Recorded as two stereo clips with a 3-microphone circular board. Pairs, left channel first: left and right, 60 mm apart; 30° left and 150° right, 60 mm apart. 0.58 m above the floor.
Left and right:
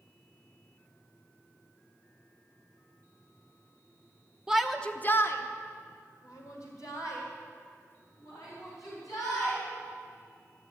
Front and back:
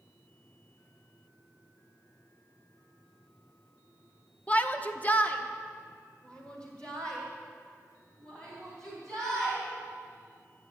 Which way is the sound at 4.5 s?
20° right.